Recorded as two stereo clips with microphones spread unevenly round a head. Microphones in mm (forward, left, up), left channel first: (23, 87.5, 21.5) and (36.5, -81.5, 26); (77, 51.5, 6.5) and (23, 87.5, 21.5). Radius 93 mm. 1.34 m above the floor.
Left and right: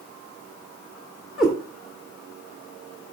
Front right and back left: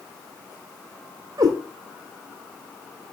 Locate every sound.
1.4 s a cat meowing: 175° right, 1.9 m